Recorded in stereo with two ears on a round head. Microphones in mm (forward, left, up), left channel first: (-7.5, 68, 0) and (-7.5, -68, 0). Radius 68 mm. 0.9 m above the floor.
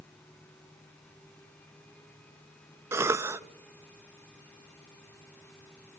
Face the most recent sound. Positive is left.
turn(degrees=-15)  # may be behind; listen again after turning